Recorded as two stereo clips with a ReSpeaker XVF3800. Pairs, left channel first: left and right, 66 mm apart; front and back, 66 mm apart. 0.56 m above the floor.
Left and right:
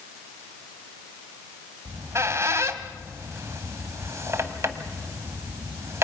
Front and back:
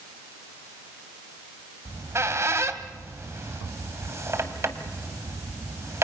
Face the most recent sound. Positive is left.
turn(degrees=-135)